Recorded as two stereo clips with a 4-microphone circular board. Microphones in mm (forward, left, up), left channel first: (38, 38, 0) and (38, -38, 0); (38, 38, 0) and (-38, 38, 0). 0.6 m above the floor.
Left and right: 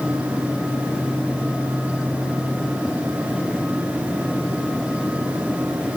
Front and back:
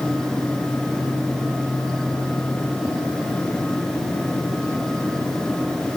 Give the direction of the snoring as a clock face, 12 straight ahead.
I don't hear snoring.